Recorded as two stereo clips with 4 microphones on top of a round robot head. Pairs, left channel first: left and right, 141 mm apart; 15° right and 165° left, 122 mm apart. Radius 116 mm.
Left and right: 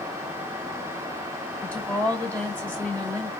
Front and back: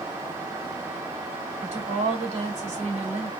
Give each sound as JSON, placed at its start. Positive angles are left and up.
{"t": 1.6, "sound": "a woman speaking", "azimuth_deg": 165, "distance_m": 2.5}